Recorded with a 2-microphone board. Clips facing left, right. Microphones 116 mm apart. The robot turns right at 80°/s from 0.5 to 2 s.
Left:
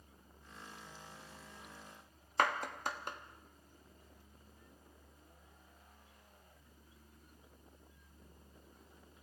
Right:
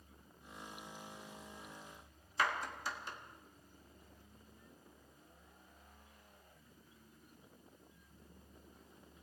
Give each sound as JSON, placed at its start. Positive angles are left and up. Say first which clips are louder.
{"t": 2.4, "sound": "a clap", "louder": "left 3 dB", "side_deg": 55, "distance_m": 1.3}